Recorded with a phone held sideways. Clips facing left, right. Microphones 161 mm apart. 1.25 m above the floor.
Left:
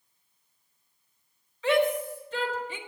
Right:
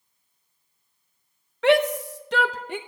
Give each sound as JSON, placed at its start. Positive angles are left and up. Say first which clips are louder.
{"t": 1.6, "sound": "a shout", "louder": "right 5 dB", "side_deg": -70, "distance_m": 0.9}